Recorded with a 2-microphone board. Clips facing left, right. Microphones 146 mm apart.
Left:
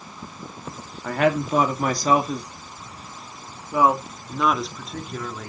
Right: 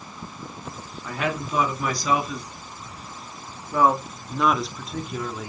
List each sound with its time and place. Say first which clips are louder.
1.0 s a woman speaking: left 7 dB; 60° left (ahead or behind), 2 m; by 5.5 s 10° right (ahead or behind), 2.5 m